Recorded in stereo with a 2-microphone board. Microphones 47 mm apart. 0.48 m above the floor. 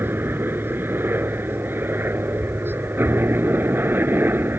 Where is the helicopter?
50° right (ahead or behind).